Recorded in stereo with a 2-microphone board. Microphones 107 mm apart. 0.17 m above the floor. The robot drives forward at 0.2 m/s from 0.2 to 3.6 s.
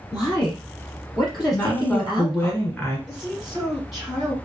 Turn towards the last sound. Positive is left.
turn(degrees=-5)  # may be behind; listen again after turning